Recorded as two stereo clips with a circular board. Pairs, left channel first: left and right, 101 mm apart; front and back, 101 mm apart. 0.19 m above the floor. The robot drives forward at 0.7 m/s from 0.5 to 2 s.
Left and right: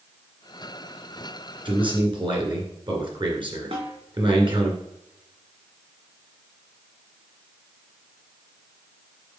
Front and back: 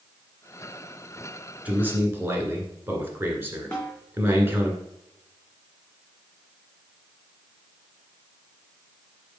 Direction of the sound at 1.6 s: 105° right.